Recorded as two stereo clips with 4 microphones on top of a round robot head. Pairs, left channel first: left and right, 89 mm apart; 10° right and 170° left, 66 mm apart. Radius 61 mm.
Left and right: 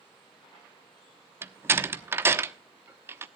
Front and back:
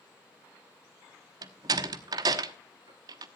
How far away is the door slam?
About 1.1 m.